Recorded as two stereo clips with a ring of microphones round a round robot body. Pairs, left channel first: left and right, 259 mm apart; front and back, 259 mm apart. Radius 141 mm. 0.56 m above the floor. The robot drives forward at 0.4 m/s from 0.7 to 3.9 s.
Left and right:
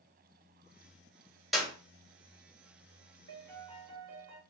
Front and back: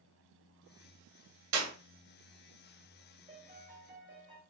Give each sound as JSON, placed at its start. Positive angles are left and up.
{"t": 1.5, "sound": "a clap", "azimuth_deg": 180, "distance_m": 1.7}
{"t": 3.3, "sound": "a piano", "azimuth_deg": -105, "distance_m": 1.0}